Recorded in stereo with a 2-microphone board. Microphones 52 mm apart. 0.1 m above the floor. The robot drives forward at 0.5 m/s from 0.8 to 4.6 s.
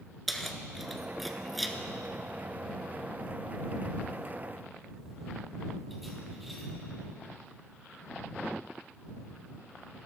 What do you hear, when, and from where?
0.3 s keys jangling: centre (ahead or behind), 0.8 m